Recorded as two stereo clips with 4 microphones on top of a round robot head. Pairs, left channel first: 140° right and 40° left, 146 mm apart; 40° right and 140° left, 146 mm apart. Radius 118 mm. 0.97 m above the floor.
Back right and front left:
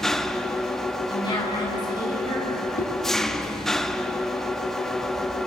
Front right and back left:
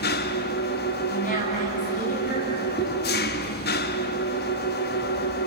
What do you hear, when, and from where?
0.0 s an engine running: 50° right, 1.0 m
1.1 s a woman speaking: 75° right, 8.5 m
2.8 s a whoosh: 100° right, 6.5 m